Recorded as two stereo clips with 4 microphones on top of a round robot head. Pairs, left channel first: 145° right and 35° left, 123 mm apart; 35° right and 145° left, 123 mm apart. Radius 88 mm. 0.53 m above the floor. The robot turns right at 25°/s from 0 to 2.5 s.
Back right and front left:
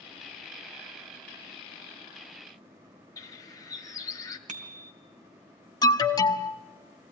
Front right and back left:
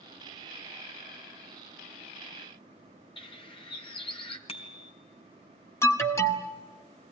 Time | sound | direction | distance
3.2 | a bird | 80° right | 1.8 m
4.5 | a bicycle bell | 10° left | 2.5 m
5.8 | an alarm | 95° right | 1.8 m